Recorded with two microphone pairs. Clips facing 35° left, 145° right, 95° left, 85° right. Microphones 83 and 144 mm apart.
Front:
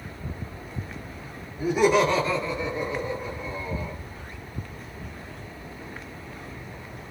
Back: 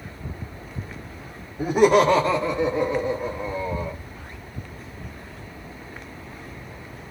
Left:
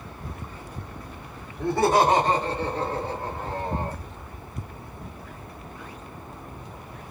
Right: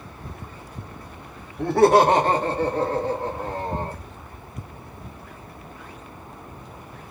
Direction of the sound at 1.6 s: 100° right.